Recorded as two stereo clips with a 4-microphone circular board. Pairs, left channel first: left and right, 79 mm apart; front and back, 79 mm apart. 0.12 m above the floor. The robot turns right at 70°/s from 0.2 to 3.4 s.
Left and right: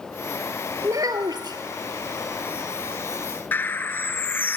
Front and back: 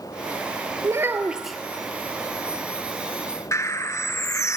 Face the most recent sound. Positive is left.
turn(degrees=35)